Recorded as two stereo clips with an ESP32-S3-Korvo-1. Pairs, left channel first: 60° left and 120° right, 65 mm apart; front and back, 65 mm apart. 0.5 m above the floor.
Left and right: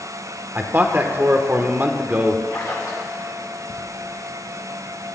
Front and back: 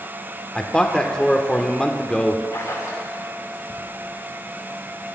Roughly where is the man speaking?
Right.